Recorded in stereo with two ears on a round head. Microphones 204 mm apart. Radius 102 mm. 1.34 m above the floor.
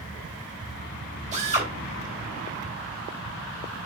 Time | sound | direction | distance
1.3 | a drill | 30° right (ahead or behind) | 4 m